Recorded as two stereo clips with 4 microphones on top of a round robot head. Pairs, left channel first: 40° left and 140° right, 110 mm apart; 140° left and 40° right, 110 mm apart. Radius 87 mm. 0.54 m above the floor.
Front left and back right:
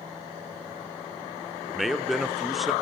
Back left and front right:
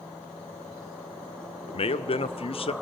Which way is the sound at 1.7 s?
135° left.